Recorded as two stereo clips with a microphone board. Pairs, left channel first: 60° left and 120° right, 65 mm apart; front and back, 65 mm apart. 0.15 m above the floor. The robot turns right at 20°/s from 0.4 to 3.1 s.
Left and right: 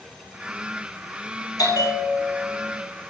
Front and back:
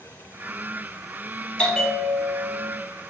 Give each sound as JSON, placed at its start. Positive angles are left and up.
{"t": 1.6, "sound": "a bell", "azimuth_deg": 75, "distance_m": 2.0}